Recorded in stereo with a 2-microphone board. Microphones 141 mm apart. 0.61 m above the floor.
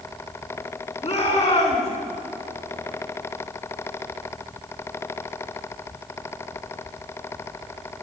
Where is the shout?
45° left (ahead or behind), 6.5 m.